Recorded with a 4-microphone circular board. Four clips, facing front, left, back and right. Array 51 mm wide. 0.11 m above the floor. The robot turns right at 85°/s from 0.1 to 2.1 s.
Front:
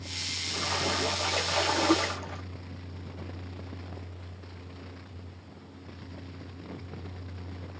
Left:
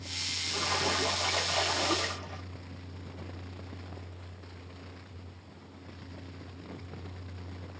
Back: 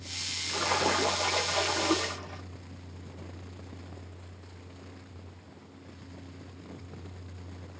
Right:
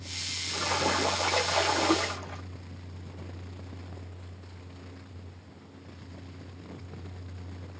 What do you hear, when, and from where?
0.5 s a splash: 175° right, 0.7 m; by 2.4 s 35° right, 0.7 m